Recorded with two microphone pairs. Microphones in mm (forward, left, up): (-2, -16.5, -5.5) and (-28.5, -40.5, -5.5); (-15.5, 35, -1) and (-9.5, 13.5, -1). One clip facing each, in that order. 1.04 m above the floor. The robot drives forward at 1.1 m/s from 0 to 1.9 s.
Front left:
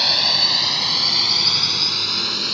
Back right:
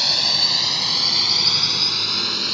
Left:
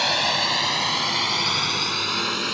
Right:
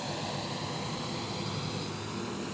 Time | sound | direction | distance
0.0 | a drone | 115° left | ?